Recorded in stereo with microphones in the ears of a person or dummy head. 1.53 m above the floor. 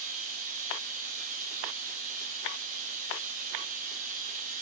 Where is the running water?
50° right (ahead or behind), 1.0 m.